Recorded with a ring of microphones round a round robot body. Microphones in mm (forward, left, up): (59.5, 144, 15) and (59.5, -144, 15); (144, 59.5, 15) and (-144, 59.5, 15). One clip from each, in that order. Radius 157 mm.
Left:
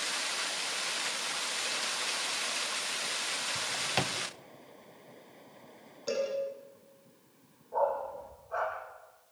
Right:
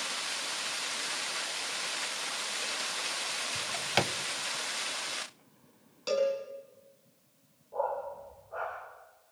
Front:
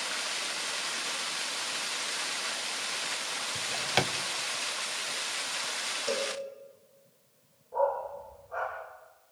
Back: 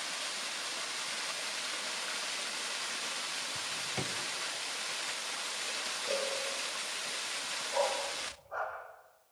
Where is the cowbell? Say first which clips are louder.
Right 4 dB, front 2 dB; 105° right, 7.5 m.